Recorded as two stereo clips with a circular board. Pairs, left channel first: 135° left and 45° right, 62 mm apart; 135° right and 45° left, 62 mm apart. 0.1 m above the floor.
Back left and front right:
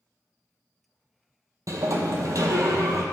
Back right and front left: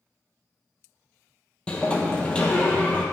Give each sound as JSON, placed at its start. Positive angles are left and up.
{"t": 1.7, "sound": "a sliding door", "azimuth_deg": -60, "distance_m": 1.1}